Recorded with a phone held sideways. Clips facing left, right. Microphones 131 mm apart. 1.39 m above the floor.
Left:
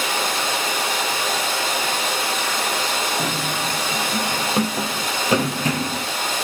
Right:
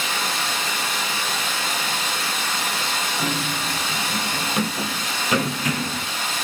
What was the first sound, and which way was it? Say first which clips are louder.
Running water: left 3 dB; 80° left.